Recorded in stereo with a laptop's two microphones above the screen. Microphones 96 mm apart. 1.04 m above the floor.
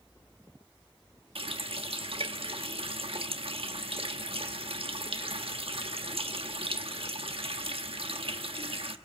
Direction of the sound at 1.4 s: 75° right (ahead or behind).